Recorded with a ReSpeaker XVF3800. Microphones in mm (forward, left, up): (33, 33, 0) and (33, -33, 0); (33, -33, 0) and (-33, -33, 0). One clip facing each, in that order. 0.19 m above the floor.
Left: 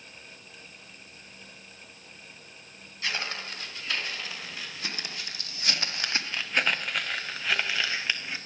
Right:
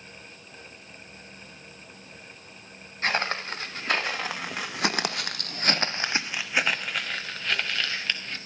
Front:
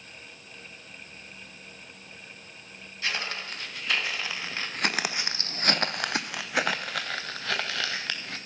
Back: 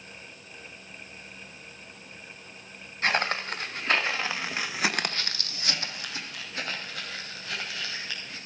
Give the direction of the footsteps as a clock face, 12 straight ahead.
4 o'clock.